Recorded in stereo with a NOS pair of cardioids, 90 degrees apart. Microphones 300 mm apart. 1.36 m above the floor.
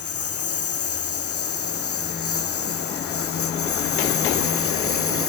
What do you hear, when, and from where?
0.0 s a lawn mower: 50° left; by 5.3 s 45° left